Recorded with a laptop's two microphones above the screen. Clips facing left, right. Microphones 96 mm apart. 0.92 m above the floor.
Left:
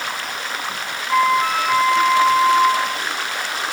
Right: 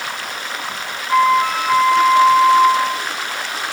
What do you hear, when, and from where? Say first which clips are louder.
1.1 s a flute: right 3 dB; 5° left (ahead or behind), 1.2 m